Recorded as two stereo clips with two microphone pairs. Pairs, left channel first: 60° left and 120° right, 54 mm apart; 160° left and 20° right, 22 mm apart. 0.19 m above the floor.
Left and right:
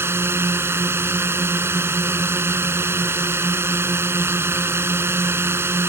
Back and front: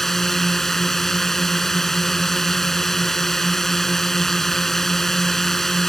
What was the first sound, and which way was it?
A drone, 135° right.